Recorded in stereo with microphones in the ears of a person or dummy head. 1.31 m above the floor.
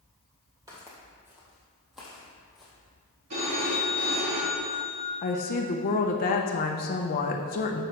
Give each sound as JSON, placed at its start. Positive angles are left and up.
{"t": 0.7, "sound": "footsteps", "side_deg": -15, "distance_m": 1.7}
{"t": 3.3, "sound": "a phone ringing", "side_deg": -50, "distance_m": 1.9}
{"t": 5.2, "sound": "a woman speaking", "side_deg": 40, "distance_m": 0.7}